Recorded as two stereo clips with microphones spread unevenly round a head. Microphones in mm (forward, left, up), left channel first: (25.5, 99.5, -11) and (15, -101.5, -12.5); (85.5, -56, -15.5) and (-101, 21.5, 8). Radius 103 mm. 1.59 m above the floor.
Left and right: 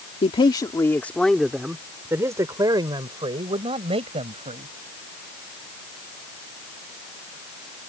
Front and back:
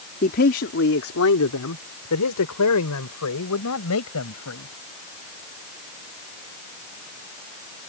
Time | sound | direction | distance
0.2 | a man speaking | 30° left | ?